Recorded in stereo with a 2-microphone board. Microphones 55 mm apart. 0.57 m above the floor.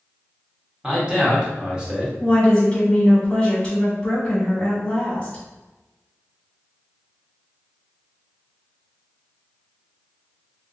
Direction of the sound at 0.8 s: 15° right (ahead or behind).